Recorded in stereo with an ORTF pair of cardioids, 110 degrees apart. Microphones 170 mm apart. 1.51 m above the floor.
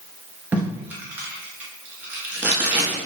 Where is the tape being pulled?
10° right, 1.5 m.